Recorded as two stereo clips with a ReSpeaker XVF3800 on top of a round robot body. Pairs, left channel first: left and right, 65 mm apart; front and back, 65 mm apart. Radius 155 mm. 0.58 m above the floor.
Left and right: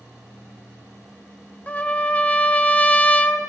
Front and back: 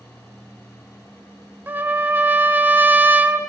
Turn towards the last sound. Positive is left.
turn(degrees=145)